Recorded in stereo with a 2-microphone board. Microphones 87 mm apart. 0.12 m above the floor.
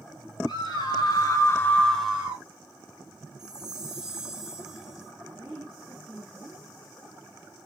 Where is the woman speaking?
Centre (ahead or behind), 1.7 m.